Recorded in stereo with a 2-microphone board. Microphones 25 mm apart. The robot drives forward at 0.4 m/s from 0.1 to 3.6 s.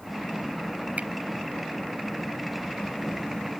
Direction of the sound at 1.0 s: 70° right (ahead or behind).